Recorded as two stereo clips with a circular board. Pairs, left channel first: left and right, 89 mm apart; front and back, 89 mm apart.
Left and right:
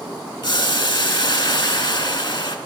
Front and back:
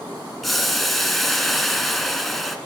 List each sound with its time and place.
0.4 s boiling: 90° left, 0.5 m